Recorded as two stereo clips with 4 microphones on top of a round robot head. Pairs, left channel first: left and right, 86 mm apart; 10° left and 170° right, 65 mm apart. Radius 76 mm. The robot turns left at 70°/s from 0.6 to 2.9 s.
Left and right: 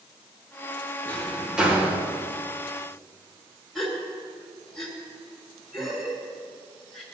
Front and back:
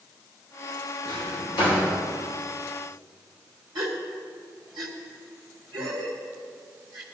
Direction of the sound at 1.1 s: 30° left.